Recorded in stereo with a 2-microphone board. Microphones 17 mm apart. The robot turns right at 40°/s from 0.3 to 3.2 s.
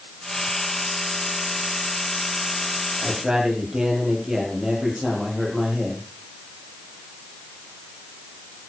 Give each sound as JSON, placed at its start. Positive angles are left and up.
{"t": 3.0, "sound": "a man speaking", "side_deg": -35, "distance_m": 9.0}